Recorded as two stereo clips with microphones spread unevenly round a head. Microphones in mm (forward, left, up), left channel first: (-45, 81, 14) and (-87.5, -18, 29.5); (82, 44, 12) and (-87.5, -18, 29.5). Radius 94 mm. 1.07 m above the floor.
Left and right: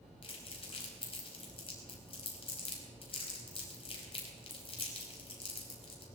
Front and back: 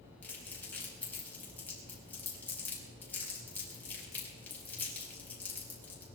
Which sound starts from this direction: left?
Crumpling, at 0.2 s.